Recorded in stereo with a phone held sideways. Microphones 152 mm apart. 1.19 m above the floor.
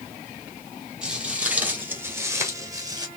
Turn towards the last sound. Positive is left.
turn(degrees=-25)  # may be behind; listen again after turning